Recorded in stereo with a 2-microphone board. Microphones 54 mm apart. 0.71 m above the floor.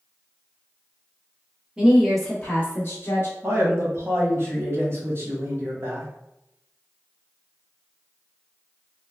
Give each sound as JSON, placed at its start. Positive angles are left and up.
{"t": 1.8, "sound": "a woman speaking", "side_deg": -15, "distance_m": 0.9}
{"t": 3.4, "sound": "a man speaking", "side_deg": -45, "distance_m": 1.3}